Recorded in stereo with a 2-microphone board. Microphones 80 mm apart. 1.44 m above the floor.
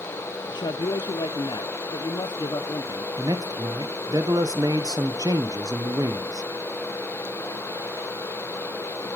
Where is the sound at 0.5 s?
60° left (ahead or behind), 0.6 m.